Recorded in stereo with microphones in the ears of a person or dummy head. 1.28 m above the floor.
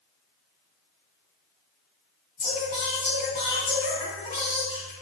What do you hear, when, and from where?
2.4 s singing: 35° left (ahead or behind), 1.9 m